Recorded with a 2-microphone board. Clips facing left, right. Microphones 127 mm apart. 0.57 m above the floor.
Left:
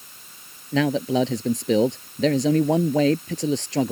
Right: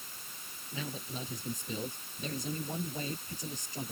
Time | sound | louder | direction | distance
0.7 | a man speaking | left 21 dB | 85° left | ?